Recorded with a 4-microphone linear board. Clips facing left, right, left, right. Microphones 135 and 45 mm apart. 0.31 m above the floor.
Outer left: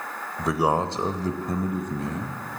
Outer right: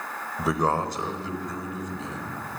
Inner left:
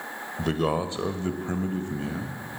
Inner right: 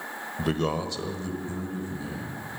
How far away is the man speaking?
About 0.9 m.